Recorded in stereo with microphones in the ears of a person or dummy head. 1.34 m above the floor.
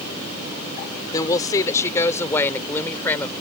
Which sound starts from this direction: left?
A woman speaking, at 1.1 s.